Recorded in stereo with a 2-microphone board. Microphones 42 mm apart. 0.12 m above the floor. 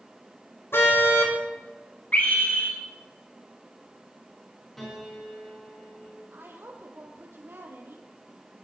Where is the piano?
5° left (ahead or behind), 9 m.